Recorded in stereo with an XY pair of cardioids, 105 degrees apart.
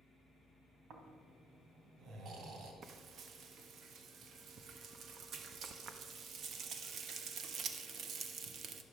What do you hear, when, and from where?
0.9 s snoring: 65° right, 2.5 m
2.8 s frying: 60° right, 1.2 m